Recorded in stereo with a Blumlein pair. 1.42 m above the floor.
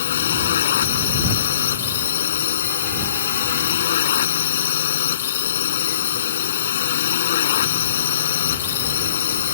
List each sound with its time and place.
0.0 s a drone: 60° left